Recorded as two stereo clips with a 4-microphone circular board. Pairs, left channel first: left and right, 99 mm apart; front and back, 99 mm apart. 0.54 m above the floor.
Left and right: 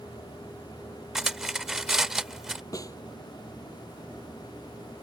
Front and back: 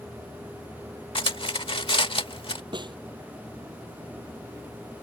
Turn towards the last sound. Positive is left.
turn(degrees=145)